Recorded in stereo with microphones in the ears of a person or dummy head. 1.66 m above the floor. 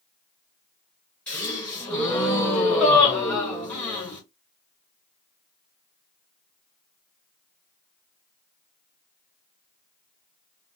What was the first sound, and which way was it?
A gasp, 10° left (ahead or behind).